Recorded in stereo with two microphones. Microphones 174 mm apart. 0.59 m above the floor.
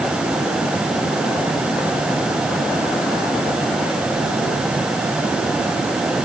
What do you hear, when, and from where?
Only background noise.